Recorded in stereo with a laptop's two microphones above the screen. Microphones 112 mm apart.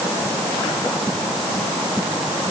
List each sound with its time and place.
Only background noise.